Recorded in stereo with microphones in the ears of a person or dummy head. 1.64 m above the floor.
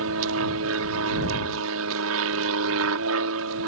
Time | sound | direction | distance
0.0 | an aircraft | 70° right (ahead or behind) | ?